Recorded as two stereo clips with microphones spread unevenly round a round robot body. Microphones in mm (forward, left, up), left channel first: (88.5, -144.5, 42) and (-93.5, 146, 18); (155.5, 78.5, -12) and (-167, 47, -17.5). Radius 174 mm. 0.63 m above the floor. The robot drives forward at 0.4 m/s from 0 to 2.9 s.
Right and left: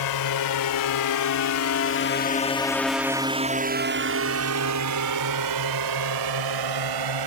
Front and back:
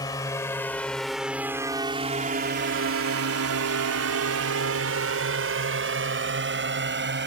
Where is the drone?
75° right; by 7.3 s 130° left.